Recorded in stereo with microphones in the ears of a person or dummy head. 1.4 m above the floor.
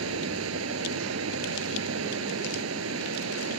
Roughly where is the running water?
Right.